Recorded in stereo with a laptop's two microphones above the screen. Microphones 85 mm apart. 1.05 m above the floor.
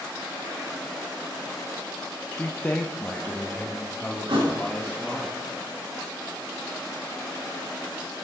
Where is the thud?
80° right, 4.5 m.